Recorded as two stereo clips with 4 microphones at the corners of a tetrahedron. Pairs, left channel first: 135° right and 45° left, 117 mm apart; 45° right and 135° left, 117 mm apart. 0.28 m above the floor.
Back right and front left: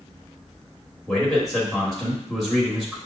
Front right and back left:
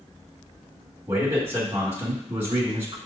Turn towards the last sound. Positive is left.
turn(degrees=140)